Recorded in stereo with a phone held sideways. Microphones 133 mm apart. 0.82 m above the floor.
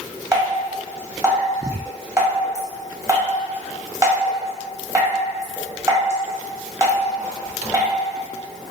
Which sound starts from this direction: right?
Dripping, at 0.3 s.